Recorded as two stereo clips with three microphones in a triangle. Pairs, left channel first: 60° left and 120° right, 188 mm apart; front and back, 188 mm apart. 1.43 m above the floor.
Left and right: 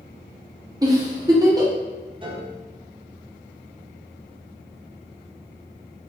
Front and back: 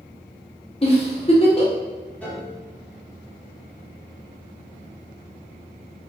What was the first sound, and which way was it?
A giggle, 50° right.